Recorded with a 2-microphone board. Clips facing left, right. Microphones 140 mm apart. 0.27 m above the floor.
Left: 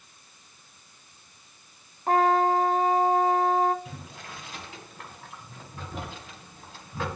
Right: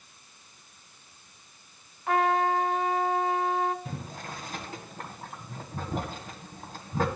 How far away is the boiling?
About 1.8 m.